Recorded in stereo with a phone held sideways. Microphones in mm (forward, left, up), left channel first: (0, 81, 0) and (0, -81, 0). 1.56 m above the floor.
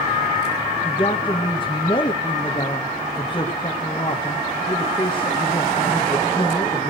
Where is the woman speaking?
30° left (ahead or behind), 2 m.